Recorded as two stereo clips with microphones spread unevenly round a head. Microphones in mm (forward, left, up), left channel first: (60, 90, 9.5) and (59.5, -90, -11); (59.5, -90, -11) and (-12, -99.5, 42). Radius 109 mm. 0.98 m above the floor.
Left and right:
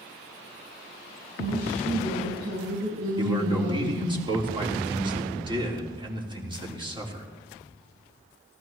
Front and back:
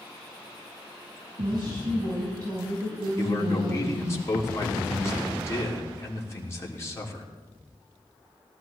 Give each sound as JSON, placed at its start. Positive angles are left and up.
{"t": 1.4, "sound": "a woman speaking", "azimuth_deg": -145, "distance_m": 6.5}
{"t": 3.2, "sound": "a man speaking", "azimuth_deg": -30, "distance_m": 3.5}